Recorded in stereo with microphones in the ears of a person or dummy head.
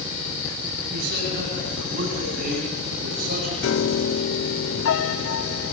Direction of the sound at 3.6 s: 65° left (ahead or behind).